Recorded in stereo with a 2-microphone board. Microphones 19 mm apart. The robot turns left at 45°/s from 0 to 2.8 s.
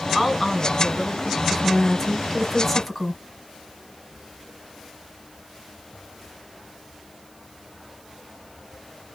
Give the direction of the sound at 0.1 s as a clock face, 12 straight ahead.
6 o'clock.